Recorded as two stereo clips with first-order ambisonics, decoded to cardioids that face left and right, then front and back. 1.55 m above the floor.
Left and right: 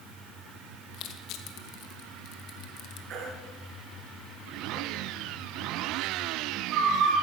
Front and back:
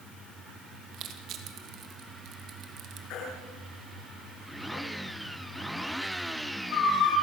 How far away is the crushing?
About 2.5 m.